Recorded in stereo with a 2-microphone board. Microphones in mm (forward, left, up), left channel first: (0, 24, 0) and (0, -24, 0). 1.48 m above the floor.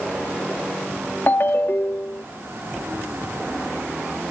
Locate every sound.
1.3 s a ringtone: 45° left (ahead or behind)